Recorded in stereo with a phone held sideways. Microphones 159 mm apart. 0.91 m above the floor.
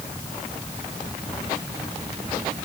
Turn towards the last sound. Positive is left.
No sound to turn to.